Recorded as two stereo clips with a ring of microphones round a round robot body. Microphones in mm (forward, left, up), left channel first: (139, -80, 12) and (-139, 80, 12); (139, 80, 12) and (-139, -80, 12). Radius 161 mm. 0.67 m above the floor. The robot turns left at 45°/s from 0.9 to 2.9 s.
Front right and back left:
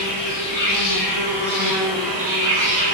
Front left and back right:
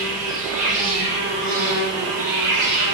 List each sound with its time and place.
0.0 s an insect: 60° right, 1.0 m; by 2.9 s 150° right, 1.0 m